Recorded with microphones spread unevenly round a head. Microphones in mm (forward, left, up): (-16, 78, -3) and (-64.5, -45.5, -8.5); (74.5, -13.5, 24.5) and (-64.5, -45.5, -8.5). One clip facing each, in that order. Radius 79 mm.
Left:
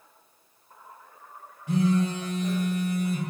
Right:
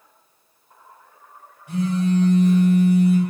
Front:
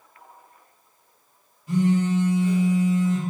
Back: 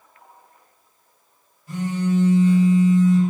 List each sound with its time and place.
1.7 s a phone buzzing: 85° left, 1.0 m